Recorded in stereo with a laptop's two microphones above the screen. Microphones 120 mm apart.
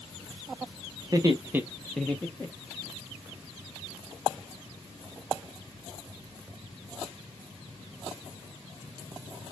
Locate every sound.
1.0 s laughter: 35° right (ahead or behind), 0.8 m; by 2.9 s 25° left (ahead or behind), 1.3 m